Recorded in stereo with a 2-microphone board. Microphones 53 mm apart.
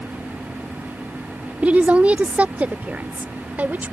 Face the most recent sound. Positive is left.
turn(degrees=-35)  # may be behind; listen again after turning